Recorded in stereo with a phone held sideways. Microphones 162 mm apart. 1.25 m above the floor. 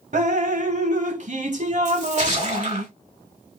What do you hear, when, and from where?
0.1 s dripping: 55° right (ahead or behind), 0.7 m
1.9 s a splash: 50° right (ahead or behind), 2.5 m